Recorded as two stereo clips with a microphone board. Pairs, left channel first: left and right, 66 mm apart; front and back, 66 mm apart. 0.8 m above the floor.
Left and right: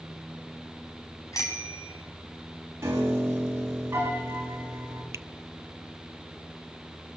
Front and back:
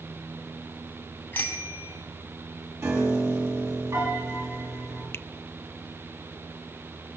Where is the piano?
140° right, 7 m.